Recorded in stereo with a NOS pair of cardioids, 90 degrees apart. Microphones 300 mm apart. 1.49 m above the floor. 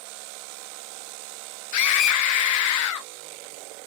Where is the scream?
70° left, 0.7 m.